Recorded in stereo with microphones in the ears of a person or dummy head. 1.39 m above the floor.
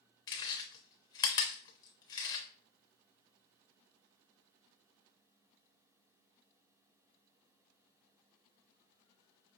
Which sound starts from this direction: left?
Chewing, at 0.3 s.